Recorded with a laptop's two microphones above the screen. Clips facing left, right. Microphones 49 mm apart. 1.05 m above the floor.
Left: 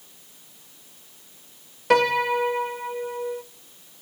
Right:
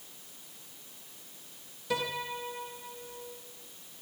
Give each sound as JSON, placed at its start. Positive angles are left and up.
{"t": 1.9, "sound": "a piano", "side_deg": 65, "distance_m": 0.5}